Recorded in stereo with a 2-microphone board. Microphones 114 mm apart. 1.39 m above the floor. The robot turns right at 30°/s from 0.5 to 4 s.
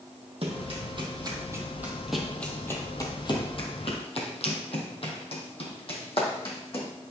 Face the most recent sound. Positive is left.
turn(degrees=50)  # may be behind; listen again after turning